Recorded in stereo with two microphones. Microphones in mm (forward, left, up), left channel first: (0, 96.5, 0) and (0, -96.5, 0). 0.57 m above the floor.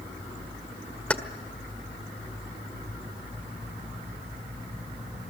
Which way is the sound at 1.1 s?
5° left (ahead or behind).